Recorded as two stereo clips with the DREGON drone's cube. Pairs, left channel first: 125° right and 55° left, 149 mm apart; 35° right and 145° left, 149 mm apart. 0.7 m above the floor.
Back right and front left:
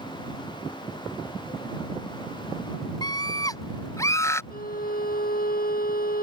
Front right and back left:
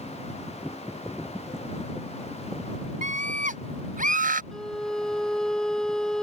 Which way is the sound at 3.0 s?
175° left.